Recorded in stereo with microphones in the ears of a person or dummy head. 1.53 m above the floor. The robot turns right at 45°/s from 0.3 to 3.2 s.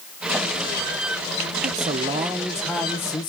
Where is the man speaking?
45° right, 0.8 m; by 3.3 s 25° left, 0.8 m.